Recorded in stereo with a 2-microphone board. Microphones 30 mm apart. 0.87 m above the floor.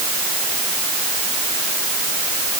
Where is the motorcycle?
No motorcycle in this recording.